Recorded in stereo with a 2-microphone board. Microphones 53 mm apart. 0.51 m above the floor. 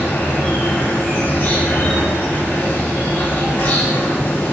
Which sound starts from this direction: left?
An insect, at 0.0 s.